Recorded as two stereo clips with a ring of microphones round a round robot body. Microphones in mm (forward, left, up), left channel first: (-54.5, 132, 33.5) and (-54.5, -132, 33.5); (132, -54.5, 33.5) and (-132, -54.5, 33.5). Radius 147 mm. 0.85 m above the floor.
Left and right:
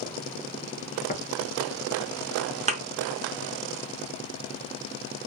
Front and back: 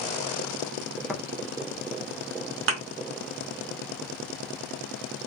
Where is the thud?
150° right, 0.8 m.